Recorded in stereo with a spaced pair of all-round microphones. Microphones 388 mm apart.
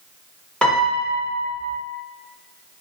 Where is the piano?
Centre (ahead or behind), 0.8 m.